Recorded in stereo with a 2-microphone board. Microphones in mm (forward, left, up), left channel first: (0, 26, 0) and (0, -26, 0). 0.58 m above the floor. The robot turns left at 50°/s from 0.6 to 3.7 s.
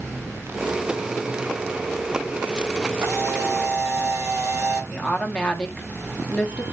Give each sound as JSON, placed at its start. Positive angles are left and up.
{"t": 3.0, "sound": "a camera shutter", "azimuth_deg": -75, "distance_m": 2.5}
{"t": 4.9, "sound": "a woman speaking", "side_deg": 15, "distance_m": 0.7}